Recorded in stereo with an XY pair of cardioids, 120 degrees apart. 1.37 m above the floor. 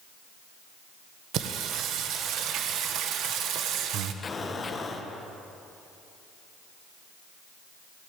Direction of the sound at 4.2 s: 30° left.